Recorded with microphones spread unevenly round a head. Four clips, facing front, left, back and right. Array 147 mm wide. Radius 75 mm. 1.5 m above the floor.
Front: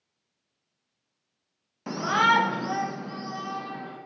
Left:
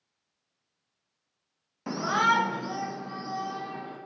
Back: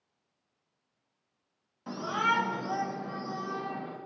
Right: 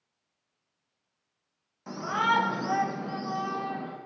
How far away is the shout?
About 0.7 m.